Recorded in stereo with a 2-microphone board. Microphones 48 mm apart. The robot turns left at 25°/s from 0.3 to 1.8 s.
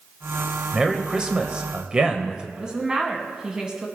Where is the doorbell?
I don't hear a doorbell.